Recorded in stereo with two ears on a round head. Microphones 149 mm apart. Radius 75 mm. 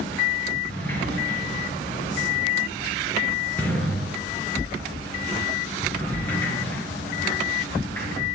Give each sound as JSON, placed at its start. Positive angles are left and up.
{"t": 0.7, "sound": "a sliding door", "side_deg": 10, "distance_m": 3.0}